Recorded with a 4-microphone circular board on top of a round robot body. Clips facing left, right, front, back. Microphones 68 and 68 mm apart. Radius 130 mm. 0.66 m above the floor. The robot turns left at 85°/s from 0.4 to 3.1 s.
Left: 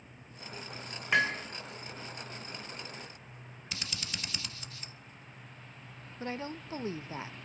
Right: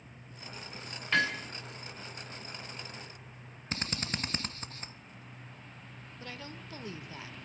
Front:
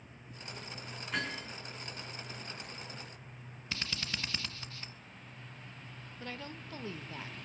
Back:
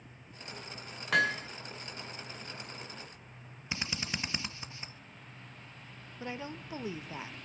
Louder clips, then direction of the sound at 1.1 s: Left 1 dB, back 9 dB; 165° left.